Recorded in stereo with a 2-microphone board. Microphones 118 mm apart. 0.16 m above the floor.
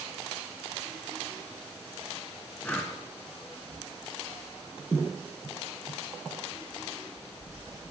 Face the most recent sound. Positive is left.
turn(degrees=10)  # may be behind; listen again after turning